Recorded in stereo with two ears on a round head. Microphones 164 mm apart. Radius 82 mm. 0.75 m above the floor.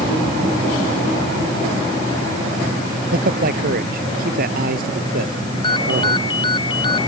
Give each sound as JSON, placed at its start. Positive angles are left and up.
{"t": 3.1, "sound": "a man speaking", "side_deg": -55}
{"t": 5.6, "sound": "a ringtone", "side_deg": 25}